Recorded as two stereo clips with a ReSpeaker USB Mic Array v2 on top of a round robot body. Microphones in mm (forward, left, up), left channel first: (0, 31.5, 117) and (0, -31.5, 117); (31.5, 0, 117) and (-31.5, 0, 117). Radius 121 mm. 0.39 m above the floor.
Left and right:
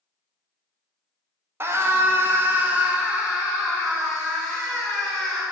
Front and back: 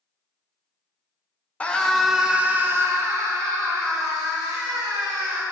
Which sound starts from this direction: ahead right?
A scream, at 1.6 s.